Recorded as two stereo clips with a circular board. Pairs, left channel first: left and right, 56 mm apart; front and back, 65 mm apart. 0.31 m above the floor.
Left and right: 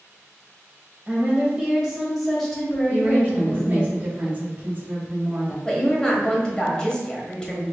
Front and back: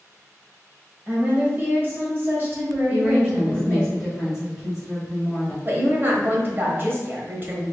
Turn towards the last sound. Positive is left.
turn(degrees=155)